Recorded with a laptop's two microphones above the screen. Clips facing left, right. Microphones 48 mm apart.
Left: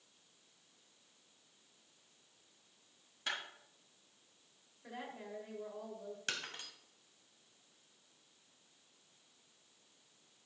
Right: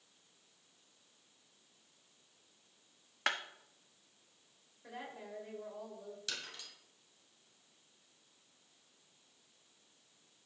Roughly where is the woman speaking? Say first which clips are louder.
Even; centre.